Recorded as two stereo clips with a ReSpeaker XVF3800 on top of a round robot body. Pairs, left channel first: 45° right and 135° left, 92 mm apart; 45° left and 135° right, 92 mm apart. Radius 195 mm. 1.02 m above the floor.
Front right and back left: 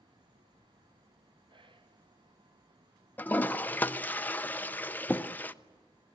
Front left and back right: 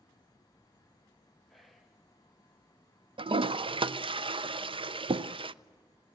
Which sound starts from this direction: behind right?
A toilet flushing, at 3.2 s.